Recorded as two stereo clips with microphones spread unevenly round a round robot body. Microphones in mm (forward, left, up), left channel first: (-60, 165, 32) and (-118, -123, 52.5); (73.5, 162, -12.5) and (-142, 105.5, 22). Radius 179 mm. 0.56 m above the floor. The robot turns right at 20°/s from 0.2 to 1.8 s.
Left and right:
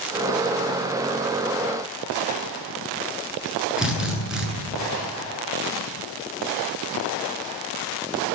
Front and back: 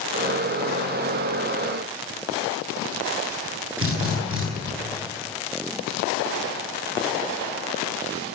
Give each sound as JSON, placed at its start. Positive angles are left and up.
{"t": 3.8, "sound": "a drill", "azimuth_deg": 170, "distance_m": 9.5}